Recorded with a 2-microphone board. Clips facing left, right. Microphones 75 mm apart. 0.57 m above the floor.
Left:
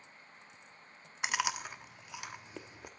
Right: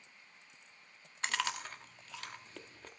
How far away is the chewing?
About 1.0 m.